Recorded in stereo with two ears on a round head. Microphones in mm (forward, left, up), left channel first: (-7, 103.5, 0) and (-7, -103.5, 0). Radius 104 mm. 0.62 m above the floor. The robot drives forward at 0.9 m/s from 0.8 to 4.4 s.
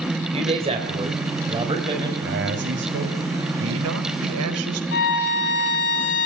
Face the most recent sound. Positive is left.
turn(degrees=50)  # may be behind; listen again after turning